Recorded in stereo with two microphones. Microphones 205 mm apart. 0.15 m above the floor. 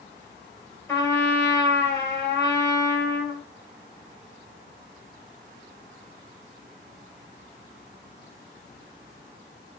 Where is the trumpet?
15° left (ahead or behind), 1.3 m.